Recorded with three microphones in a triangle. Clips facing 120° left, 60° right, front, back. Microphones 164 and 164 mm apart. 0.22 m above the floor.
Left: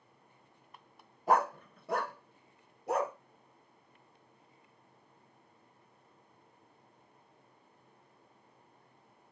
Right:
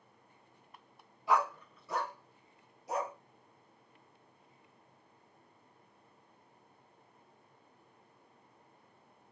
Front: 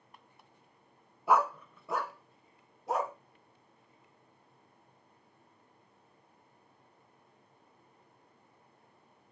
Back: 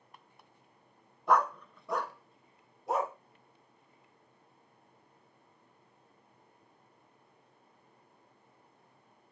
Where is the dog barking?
80° left, 0.7 m; by 3.1 s 90° left, 2 m.